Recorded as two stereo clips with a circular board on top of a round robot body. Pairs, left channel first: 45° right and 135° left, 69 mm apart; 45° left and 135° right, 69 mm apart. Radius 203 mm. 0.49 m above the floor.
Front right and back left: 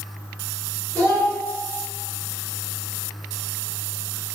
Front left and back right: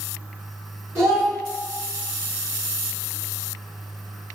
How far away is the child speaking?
About 1.9 m.